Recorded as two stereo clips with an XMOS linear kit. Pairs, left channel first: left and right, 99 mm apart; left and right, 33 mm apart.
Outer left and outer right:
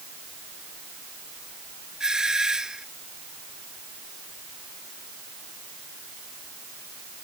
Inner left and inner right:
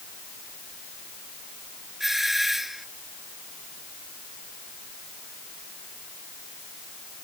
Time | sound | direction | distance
2.0 | a doorbell | 5° right (ahead or behind) | ?